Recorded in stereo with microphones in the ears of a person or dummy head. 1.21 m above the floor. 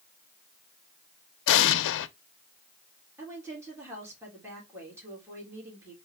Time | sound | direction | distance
1.5 | an explosion | 70° left (ahead or behind) | 0.5 m
3.2 | a woman speaking | 20° right (ahead or behind) | 2.5 m